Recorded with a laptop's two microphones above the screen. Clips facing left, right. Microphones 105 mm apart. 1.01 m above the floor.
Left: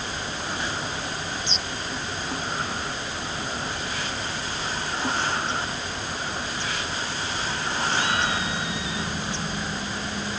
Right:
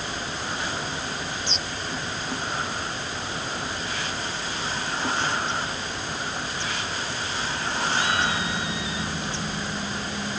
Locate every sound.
Only background noise.